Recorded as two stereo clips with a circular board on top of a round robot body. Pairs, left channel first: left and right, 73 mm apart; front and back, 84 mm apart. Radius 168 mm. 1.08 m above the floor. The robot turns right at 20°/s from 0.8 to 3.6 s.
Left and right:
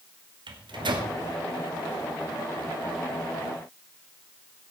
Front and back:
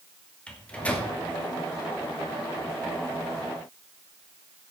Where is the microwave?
80° right, 2.5 m; by 1.1 s 70° right, 2.5 m.